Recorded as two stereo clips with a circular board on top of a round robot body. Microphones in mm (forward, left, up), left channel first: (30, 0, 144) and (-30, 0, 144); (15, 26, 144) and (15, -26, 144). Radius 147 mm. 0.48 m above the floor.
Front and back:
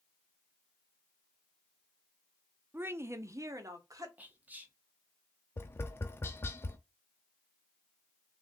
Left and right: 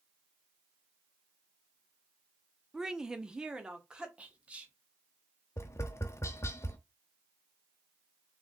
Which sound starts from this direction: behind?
A woman speaking, at 2.7 s.